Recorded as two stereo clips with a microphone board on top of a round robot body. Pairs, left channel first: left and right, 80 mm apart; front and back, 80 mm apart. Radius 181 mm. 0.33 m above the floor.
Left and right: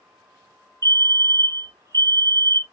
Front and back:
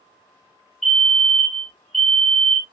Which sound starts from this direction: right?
A fire alarm, at 0.8 s.